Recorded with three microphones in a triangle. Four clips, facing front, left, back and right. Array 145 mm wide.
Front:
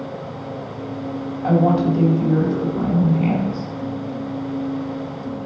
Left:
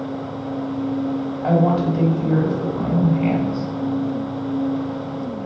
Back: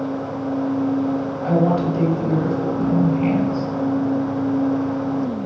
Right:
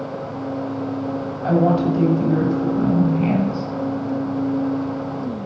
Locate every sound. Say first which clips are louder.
1.4 s a woman speaking: right 1 dB, front 2 dB; 80° left, 1.9 m